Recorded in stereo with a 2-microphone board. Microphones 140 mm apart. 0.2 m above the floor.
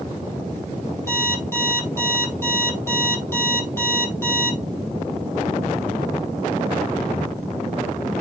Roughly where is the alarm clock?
Centre.